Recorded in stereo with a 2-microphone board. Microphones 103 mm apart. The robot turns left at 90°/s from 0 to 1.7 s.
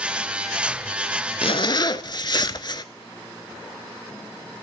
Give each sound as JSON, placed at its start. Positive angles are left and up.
{"t": 1.4, "sound": "a zipper", "side_deg": 65, "distance_m": 0.6}